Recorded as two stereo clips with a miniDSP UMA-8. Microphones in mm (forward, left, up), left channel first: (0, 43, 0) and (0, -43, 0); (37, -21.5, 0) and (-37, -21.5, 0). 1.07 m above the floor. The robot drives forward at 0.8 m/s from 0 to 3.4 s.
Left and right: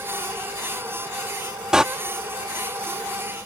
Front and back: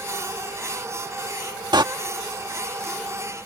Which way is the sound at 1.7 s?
170° right.